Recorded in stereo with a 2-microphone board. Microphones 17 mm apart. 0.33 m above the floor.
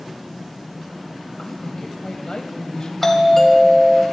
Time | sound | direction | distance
1.4 | a woman speaking | 50° left (ahead or behind) | 2 m
3.0 | a doorbell | 20° left (ahead or behind) | 2.5 m